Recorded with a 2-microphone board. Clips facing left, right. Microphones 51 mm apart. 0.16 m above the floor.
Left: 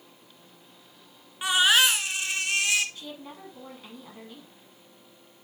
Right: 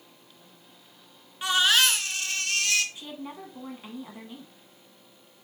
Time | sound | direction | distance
1.4 | a baby crying | 15° left (ahead or behind) | 0.5 m
3.0 | a woman speaking | 15° right (ahead or behind) | 1.1 m